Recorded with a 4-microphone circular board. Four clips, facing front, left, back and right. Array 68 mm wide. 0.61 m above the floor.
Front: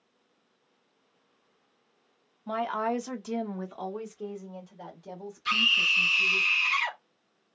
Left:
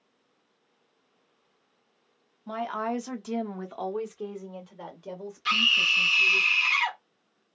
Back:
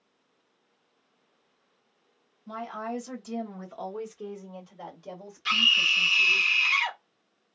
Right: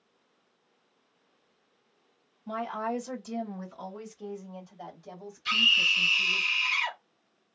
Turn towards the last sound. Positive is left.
turn(degrees=125)